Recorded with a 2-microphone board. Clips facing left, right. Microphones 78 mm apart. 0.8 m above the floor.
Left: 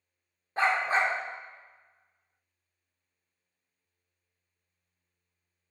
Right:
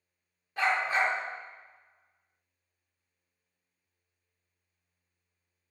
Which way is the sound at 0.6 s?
35° left (ahead or behind).